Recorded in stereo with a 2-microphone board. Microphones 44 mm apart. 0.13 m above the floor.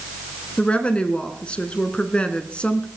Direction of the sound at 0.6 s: 25° left (ahead or behind).